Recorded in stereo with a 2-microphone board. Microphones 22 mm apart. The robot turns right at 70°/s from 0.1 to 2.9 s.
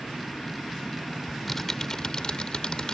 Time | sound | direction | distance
1.3 | typing on a keyboard | 5° left | ?